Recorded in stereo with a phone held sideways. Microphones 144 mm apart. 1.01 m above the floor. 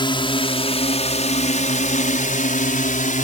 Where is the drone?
35° left (ahead or behind); by 3.2 s 65° left (ahead or behind).